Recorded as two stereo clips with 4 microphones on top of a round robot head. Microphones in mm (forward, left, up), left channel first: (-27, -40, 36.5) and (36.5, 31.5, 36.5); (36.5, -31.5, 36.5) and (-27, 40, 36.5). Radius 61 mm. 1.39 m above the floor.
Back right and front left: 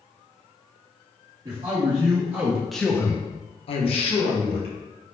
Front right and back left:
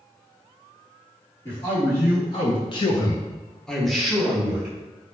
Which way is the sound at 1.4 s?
Straight ahead.